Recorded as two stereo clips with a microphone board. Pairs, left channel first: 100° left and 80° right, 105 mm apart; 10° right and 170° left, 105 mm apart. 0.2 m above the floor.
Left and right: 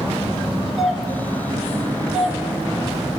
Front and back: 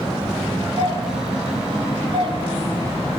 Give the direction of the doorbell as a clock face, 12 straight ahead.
6 o'clock.